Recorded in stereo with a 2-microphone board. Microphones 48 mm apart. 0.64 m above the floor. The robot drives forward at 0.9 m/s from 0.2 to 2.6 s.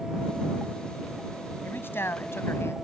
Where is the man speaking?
55° left (ahead or behind); by 2.7 s 65° left (ahead or behind).